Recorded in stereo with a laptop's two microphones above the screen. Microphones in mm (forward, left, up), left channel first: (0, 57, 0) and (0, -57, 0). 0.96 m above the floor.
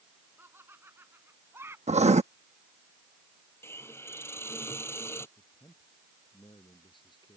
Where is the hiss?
20° left (ahead or behind).